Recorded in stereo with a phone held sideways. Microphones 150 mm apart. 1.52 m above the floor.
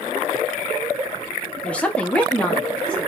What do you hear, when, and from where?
1.6 s a woman speaking: 10° left (ahead or behind), 0.7 m; by 3.1 s 5° left (ahead or behind), 1.4 m